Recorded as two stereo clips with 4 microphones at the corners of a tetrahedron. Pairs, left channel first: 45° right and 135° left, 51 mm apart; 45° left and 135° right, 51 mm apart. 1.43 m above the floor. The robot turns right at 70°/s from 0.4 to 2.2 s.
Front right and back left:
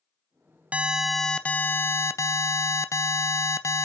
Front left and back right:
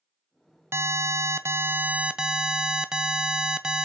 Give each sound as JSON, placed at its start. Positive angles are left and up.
{"t": 0.7, "sound": "an alarm", "azimuth_deg": -165, "distance_m": 0.5}